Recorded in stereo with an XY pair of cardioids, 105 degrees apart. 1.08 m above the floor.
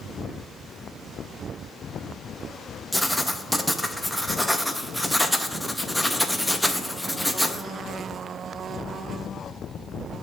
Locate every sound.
2.9 s writing: straight ahead, 0.6 m